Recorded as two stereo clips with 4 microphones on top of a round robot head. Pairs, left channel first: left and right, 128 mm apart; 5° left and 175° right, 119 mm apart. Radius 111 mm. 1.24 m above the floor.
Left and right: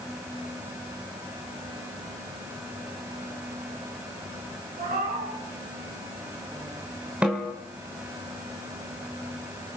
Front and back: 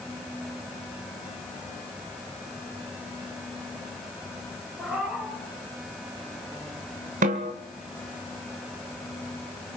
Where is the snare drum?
175° right, 1.7 m.